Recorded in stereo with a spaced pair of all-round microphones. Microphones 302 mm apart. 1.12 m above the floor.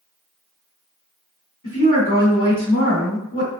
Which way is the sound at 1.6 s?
85° left.